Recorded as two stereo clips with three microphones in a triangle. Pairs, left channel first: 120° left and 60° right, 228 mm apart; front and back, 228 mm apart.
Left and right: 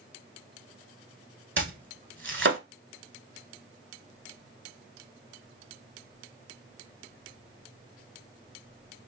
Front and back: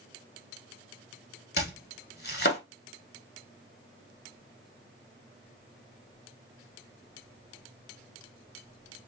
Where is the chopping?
35° right, 1.1 m.